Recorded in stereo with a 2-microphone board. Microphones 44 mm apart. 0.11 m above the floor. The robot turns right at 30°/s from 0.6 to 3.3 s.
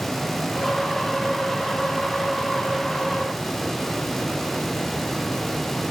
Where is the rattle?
I don't hear a rattle.